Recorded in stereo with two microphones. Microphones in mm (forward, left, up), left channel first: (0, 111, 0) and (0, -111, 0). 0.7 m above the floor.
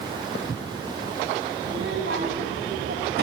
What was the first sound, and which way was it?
A child speaking, 70° right (ahead or behind).